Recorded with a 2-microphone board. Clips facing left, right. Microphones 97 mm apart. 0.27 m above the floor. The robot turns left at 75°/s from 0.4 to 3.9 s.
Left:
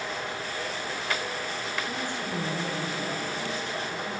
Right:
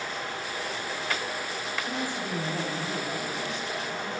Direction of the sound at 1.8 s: 25° right.